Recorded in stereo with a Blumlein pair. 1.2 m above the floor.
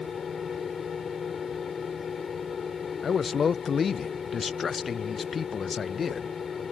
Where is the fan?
20° left.